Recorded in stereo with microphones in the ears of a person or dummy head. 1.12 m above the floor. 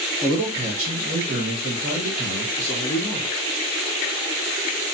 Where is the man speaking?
15° right (ahead or behind), 0.5 m; by 3.3 s 45° right (ahead or behind), 1.8 m.